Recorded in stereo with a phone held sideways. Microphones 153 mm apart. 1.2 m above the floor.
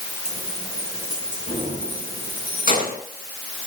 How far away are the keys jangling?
About 9.5 m.